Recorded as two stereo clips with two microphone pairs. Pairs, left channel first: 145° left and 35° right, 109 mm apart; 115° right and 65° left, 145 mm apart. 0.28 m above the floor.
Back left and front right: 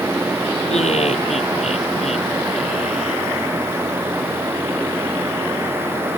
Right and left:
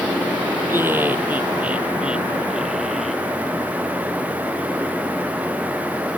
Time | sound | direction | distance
0.7 | laughter | 140° left | ?